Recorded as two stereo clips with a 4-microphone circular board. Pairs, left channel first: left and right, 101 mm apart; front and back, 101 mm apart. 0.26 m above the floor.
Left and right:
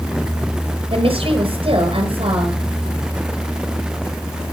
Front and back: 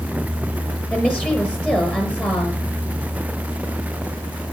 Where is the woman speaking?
80° right, 6 m.